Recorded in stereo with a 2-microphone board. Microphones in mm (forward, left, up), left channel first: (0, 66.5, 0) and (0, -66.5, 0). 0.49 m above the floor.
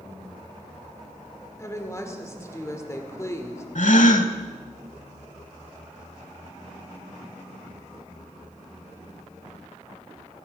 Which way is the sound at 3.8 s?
70° left (ahead or behind).